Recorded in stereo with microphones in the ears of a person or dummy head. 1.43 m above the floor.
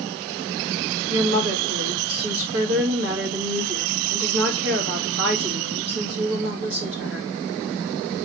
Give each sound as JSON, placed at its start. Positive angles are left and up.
{"t": 1.1, "sound": "a woman speaking", "side_deg": -80, "distance_m": 2.0}